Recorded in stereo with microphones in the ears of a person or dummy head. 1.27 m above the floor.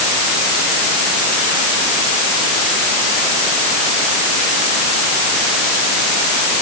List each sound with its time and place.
Only background noise.